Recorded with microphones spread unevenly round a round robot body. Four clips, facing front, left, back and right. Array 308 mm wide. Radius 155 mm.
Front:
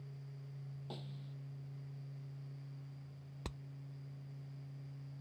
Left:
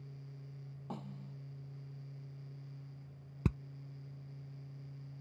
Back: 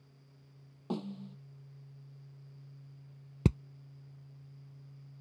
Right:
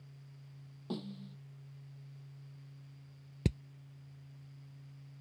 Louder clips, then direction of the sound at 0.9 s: Right 5 dB, back 14 dB; 170° right.